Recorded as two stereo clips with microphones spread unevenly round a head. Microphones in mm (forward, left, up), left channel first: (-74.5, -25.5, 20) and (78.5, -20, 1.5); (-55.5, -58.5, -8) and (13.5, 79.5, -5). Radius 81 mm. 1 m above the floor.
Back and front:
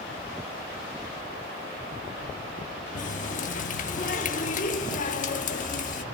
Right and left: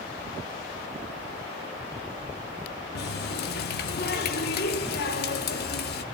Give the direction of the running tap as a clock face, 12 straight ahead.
5 o'clock.